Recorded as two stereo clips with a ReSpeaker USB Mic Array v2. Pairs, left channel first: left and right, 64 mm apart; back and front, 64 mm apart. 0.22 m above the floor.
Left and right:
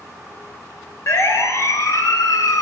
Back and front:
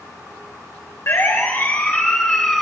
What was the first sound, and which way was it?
A siren, 135° left.